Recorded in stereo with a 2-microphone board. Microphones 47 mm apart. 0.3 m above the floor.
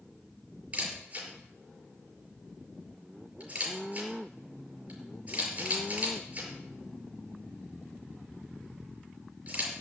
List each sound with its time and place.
0.7 s a camera shutter: 30° right (ahead or behind), 5 m